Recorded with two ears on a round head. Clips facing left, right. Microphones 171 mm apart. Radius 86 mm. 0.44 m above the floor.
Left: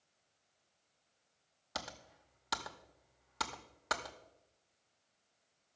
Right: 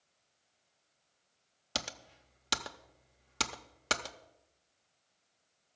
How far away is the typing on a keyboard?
About 0.7 m.